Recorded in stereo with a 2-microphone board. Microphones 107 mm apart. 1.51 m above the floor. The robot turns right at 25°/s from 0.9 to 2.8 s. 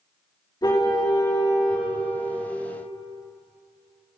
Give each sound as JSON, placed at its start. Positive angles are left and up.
{"t": 0.6, "sound": "a car horn", "side_deg": 40, "distance_m": 5.5}